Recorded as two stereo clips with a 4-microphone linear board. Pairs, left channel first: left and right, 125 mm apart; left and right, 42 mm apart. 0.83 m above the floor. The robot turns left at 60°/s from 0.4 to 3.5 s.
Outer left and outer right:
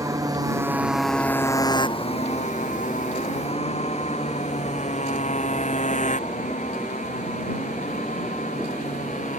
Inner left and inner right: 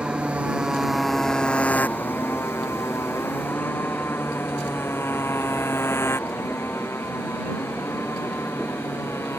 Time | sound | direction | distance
0.0 | a motorcycle | 25° right (ahead or behind) | ?